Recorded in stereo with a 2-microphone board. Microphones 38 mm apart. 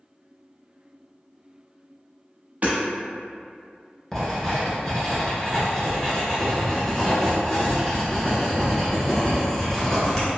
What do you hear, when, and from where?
2.6 s hammering: 45° right (ahead or behind), 1.0 m
4.1 s writing: 15° left (ahead or behind), 0.9 m